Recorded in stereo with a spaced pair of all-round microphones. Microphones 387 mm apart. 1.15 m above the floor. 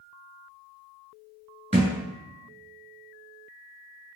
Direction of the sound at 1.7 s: 15° right (ahead or behind).